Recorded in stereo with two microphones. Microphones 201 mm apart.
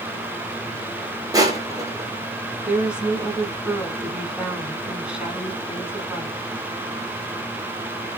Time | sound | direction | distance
1.3 | crushing | 20° right (ahead or behind) | 0.8 m
2.6 | a woman speaking | 5° right (ahead or behind) | 1.2 m